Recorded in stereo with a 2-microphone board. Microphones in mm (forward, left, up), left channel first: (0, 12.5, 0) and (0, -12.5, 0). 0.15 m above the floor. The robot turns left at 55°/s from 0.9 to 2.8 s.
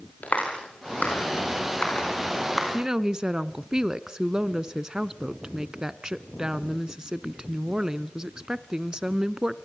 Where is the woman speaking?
30° right (ahead or behind), 1.2 m; by 9.6 s 25° right (ahead or behind), 1.2 m.